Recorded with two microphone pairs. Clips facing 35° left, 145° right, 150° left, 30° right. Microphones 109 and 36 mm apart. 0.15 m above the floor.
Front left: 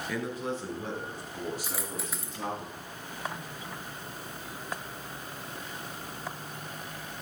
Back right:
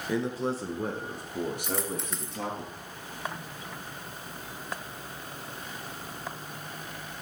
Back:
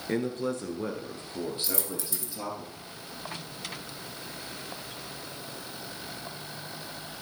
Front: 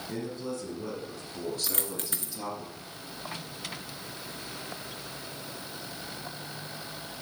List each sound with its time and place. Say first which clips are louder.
0.1 s a man speaking: back right 5 dB, back 7 dB; 155° left, 2 m; by 2.6 s 130° right, 3 m
1.6 s a dropped coin: back right 4 dB, back 1 dB; 50° right, 1.1 m